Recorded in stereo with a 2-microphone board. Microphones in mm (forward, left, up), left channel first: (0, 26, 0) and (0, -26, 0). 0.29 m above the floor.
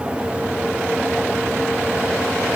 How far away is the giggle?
No giggle in this recording.